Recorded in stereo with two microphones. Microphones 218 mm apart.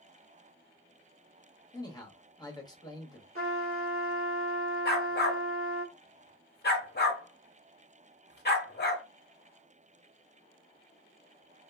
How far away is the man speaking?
About 0.9 m.